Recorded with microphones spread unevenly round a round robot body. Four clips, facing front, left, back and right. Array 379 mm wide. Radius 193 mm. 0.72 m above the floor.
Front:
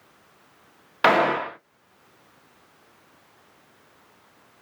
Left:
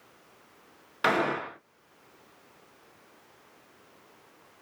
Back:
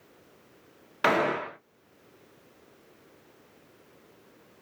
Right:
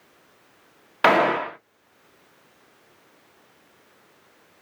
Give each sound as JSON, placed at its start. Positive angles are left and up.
{"t": 1.0, "sound": "a gunshot", "azimuth_deg": -35, "distance_m": 0.9}